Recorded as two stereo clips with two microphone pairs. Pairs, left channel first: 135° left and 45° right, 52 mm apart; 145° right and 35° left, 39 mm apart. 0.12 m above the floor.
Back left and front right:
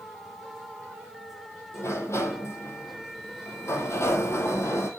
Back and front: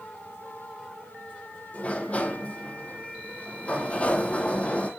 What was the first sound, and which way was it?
A sliding door, 160° left.